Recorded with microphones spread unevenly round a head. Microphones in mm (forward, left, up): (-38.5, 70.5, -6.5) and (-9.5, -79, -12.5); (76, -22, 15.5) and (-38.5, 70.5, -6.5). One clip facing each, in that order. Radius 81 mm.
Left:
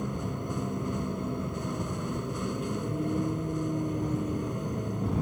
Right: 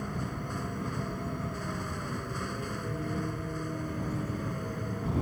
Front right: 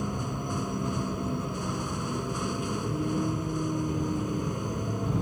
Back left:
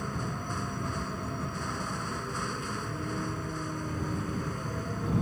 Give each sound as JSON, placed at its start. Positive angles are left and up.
{"t": 0.0, "sound": "a vehicle", "azimuth_deg": 30}